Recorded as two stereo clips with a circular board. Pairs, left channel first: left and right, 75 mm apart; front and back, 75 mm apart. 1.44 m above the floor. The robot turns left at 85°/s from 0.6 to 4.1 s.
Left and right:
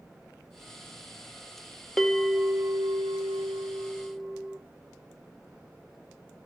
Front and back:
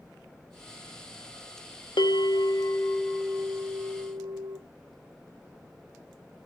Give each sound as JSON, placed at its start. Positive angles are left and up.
{"t": 2.0, "sound": "a bell", "azimuth_deg": 5, "distance_m": 1.8}